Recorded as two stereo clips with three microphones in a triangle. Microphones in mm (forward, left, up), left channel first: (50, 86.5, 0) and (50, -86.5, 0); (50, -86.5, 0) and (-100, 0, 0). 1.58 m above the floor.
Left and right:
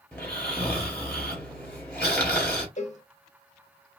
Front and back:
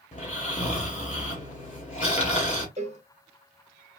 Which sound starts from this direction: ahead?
Snoring, at 0.1 s.